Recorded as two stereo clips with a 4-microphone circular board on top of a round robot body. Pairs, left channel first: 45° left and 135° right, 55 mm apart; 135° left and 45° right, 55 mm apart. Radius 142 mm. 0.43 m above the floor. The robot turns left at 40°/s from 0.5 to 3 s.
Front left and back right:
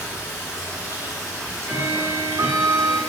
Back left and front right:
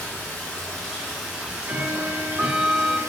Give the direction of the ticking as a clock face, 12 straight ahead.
2 o'clock.